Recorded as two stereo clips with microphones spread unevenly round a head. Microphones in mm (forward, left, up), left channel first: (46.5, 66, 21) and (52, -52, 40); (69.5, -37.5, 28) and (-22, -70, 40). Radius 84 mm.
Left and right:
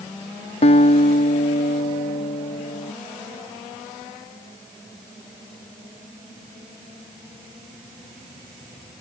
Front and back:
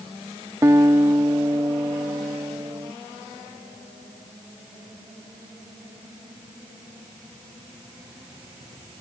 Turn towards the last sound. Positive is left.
turn(degrees=130)